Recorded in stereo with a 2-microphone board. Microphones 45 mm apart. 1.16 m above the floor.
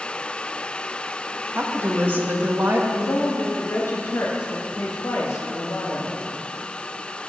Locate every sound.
1.6 s a woman speaking: 50° right (ahead or behind), 1.6 m
2.9 s a woman speaking: 80° left, 1.4 m